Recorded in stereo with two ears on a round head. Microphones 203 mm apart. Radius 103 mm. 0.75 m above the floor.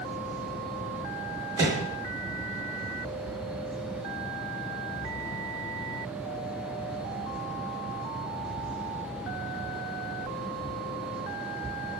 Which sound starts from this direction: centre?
A microwave, at 1.6 s.